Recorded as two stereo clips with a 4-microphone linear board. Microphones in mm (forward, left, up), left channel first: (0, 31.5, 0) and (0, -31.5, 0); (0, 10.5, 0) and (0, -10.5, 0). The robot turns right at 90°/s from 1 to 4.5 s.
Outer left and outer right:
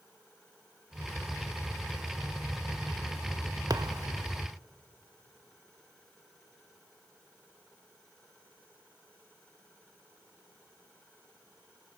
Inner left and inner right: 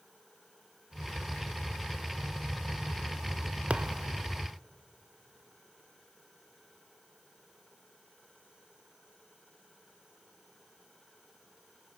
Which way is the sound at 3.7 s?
70° right (ahead or behind).